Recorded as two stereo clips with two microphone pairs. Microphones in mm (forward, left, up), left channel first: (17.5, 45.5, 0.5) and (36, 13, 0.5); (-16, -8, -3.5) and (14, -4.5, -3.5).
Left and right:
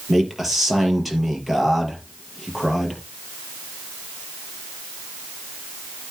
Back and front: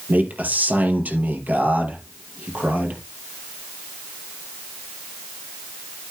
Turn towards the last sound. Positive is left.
turn(degrees=25)